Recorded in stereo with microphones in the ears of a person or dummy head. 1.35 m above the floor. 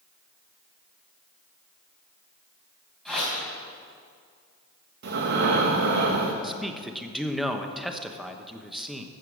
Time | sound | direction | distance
3.0 | a whoosh | 5° left (ahead or behind) | 4 m
5.0 | breathing | 65° right (ahead or behind) | 1.4 m
6.4 | a man speaking | centre (ahead or behind) | 1.1 m